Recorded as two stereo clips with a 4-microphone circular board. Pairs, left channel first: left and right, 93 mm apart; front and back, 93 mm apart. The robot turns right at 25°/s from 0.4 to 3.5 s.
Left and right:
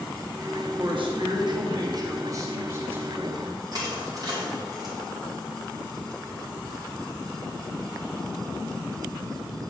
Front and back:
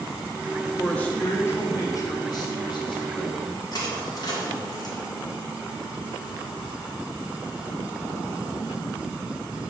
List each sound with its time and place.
0.8 s a man speaking: 80° right, 1.2 m; by 3.6 s 10° right, 1.2 m
3.7 s crushing: 45° right, 2.5 m